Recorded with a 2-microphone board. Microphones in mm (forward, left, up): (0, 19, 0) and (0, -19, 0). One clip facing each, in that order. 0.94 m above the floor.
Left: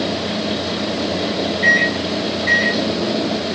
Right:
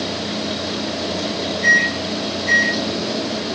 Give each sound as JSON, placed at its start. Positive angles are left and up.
{"t": 1.6, "sound": "a microwave", "side_deg": 35, "distance_m": 4.5}